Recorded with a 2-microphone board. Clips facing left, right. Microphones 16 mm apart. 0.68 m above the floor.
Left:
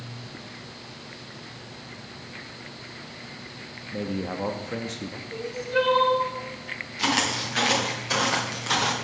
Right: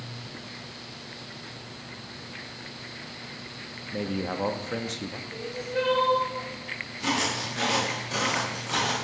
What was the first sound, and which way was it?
A man speaking, 15° right (ahead or behind).